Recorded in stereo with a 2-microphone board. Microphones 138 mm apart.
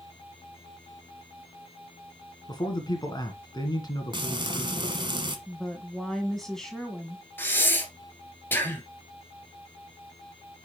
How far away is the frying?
About 1.3 m.